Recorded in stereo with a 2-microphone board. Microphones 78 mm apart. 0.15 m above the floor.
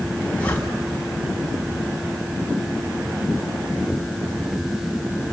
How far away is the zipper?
About 5 m.